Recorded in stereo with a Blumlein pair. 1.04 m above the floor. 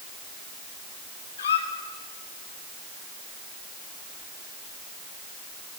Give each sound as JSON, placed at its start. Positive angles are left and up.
{"t": 1.4, "sound": "a squeak", "azimuth_deg": 65, "distance_m": 1.7}